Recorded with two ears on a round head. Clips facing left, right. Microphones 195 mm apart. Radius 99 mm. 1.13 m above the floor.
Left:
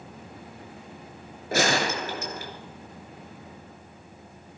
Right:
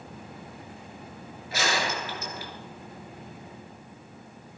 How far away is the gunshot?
About 4 m.